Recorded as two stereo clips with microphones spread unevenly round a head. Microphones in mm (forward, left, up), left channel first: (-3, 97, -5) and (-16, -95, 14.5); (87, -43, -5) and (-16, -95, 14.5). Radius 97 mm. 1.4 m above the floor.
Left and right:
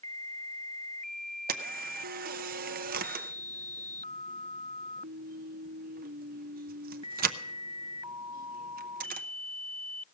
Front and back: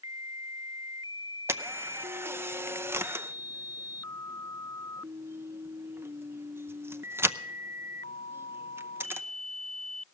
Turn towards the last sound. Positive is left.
turn(degrees=-100)